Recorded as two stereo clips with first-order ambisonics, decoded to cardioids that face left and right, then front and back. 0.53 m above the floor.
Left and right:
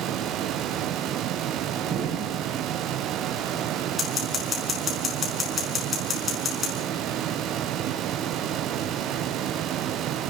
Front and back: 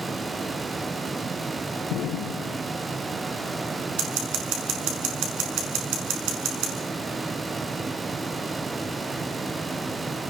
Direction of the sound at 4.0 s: 165° left.